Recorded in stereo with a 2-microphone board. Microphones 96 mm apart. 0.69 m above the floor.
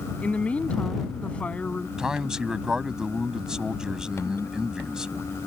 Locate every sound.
0.2 s a woman speaking: 15° left (ahead or behind)
2.0 s a man speaking: 5° right (ahead or behind)